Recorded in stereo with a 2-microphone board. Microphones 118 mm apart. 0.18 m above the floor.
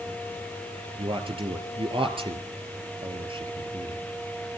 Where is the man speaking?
50° right (ahead or behind), 3.5 m.